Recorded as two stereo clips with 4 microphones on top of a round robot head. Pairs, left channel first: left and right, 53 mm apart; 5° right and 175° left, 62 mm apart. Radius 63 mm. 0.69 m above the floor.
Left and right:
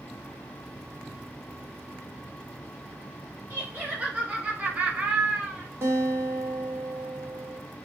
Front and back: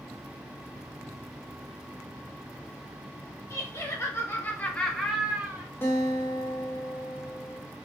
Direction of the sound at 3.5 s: 25° right.